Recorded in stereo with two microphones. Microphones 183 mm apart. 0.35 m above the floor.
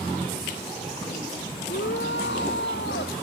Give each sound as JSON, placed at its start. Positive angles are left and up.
{"t": 1.7, "sound": "a shout", "side_deg": 85}